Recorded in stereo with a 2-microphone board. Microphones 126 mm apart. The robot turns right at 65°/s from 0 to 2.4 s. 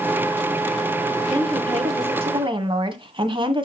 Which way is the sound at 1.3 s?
130° right.